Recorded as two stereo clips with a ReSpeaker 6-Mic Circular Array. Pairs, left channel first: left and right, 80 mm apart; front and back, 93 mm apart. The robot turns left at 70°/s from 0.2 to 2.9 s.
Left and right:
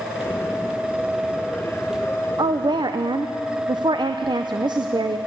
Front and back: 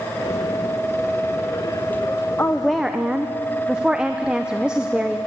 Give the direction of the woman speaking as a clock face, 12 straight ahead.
2 o'clock.